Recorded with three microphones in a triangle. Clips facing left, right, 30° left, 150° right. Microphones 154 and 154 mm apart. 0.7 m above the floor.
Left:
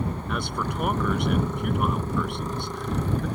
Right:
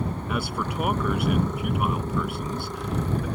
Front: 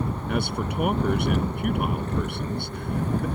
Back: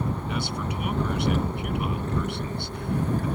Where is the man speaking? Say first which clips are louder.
Right 1 dB, front 3 dB; 5° right.